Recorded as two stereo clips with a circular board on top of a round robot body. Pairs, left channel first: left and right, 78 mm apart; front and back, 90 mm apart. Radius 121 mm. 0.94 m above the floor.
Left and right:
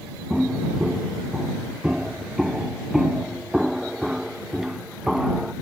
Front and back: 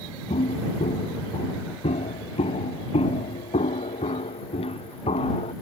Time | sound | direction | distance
0.3 | footsteps | 5° right | ?